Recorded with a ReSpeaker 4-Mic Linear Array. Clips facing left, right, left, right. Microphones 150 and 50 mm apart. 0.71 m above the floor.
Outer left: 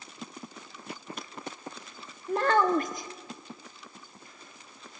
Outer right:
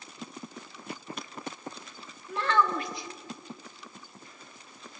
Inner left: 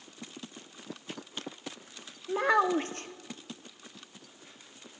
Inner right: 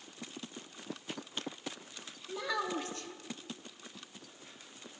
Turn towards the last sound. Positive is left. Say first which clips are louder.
# outer left 3 dB, inner left 10 dB
turn(degrees=45)  # may be behind; listen again after turning